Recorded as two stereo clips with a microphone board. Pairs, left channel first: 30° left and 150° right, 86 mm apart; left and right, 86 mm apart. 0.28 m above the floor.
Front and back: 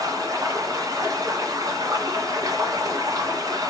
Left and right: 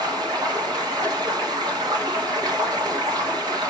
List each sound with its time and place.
0.0 s running water: 110° right, 1.9 m